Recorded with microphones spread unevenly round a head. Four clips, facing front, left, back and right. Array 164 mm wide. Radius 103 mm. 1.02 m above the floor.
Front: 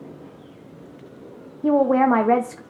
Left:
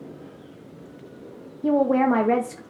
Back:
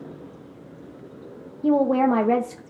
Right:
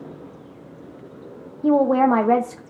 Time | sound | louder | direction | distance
1.6 | a woman speaking | right 3 dB, front 2 dB | 150° left | 0.9 m